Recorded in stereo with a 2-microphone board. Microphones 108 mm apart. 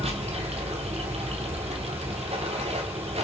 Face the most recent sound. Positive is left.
turn(degrees=-75)  # may be behind; listen again after turning